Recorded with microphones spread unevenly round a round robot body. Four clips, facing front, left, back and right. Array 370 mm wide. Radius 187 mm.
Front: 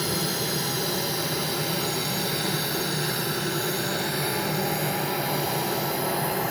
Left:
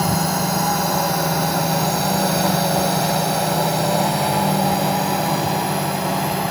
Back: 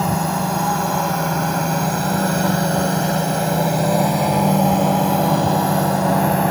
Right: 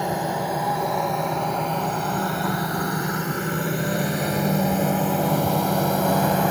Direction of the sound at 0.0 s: 135° left.